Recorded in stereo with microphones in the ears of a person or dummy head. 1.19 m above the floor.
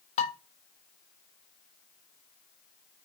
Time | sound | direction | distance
0.2 | dishes clattering | 35° left (ahead or behind) | 1.0 m